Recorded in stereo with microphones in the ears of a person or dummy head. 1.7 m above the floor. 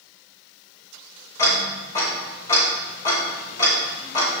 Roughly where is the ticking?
Left.